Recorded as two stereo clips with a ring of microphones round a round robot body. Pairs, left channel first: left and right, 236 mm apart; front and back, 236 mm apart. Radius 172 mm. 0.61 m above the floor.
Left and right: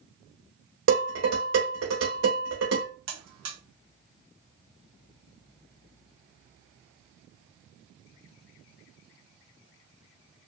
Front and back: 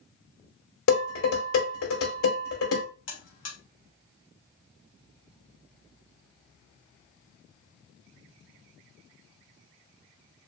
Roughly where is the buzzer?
Ahead right.